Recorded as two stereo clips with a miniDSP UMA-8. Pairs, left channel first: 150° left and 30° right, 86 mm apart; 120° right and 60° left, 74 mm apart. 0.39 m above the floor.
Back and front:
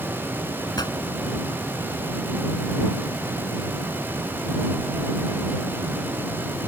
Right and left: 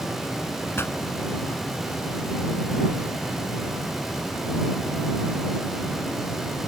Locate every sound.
0.8 s a pop: 175° right